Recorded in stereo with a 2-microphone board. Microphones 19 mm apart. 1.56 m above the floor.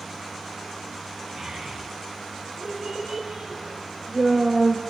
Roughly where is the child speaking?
Right.